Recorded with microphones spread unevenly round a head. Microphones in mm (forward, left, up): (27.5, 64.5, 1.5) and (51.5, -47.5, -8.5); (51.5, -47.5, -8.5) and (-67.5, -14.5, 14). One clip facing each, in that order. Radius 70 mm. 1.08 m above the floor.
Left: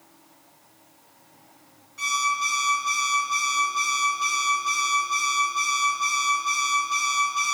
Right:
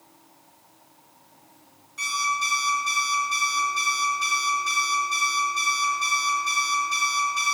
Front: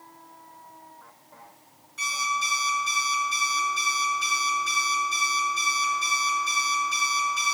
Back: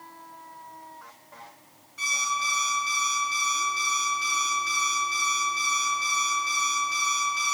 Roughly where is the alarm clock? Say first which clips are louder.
Left 1 dB, front 1 dB; ahead right.